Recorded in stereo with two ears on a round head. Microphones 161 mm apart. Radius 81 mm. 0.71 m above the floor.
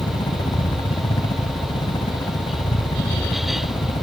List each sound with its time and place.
0.0 s a helicopter: 25° left (ahead or behind)